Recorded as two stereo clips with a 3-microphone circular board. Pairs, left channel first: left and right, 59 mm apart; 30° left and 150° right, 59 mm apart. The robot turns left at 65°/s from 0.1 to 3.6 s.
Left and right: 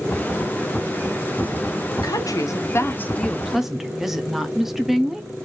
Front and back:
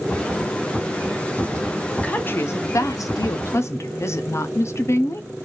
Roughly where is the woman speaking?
Left.